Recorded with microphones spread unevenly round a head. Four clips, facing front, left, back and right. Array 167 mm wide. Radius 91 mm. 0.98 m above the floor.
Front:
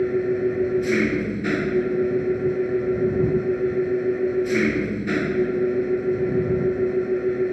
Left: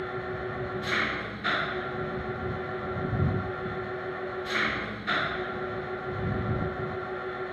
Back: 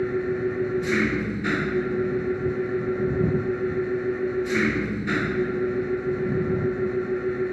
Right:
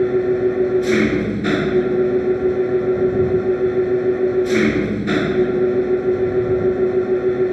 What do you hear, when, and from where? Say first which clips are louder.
0.0 s an engine running: right 18 dB, front 4 dB; 90° right